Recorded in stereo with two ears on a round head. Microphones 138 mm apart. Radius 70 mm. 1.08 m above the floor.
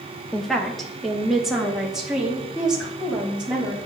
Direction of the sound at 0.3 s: 5° left (ahead or behind).